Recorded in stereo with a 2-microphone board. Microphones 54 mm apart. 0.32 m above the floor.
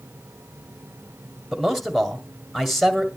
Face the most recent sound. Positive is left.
turn(degrees=0)  # may be behind; listen again after turning